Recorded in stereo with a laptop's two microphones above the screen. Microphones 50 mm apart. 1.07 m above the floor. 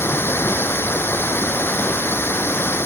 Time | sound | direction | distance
0.0 | running water | 50° left (ahead or behind) | ?